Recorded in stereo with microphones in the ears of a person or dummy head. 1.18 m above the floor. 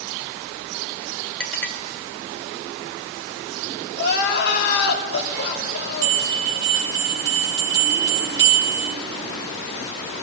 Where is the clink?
5° left (ahead or behind), 1.5 m.